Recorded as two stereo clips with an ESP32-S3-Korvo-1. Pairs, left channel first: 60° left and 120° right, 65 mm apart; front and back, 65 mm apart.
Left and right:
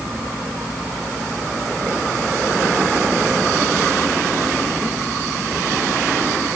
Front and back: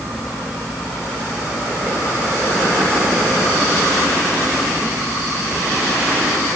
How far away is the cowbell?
No cowbell in this recording.